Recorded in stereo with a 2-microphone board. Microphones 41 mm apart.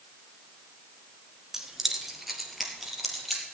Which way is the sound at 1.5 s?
10° right (ahead or behind).